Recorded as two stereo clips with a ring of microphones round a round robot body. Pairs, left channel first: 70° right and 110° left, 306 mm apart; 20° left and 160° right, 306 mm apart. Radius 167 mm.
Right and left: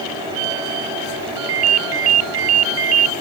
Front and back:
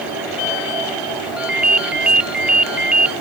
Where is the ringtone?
115° left.